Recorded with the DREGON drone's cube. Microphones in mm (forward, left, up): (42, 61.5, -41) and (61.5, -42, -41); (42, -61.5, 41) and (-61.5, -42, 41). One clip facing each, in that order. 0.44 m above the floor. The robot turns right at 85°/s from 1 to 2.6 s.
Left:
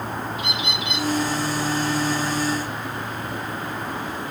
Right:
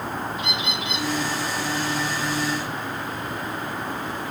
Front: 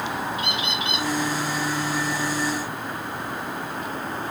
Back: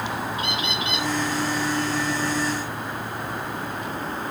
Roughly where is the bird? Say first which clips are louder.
Even, even; behind.